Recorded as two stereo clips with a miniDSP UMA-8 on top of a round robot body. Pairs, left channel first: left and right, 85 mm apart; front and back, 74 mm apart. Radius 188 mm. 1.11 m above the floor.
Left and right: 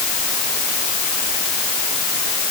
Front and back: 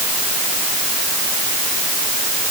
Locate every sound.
Only background noise.